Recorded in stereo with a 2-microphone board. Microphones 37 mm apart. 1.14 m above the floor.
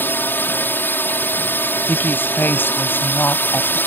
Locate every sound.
0.0 s a drone: 65° left (ahead or behind)
1.9 s a woman speaking: 60° left (ahead or behind)